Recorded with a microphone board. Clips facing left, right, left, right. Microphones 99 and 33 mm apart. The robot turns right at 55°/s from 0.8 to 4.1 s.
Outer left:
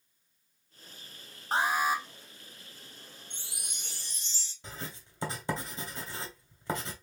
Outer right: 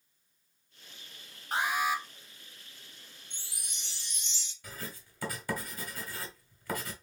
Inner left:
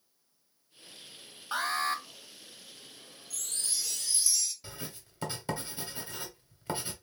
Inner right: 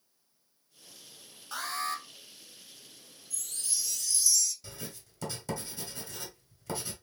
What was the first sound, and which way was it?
An alarm, 35° left (ahead or behind).